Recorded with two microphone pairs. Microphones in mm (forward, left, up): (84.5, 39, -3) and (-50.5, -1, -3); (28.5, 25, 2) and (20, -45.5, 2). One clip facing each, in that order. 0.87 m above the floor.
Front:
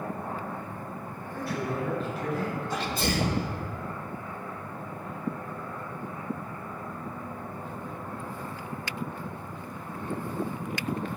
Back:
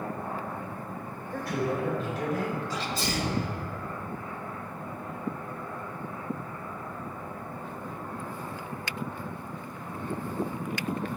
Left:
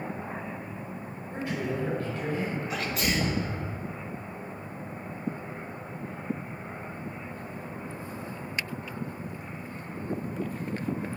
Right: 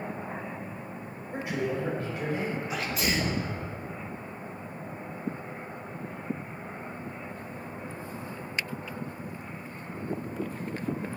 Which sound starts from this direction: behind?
A man speaking, at 1.3 s.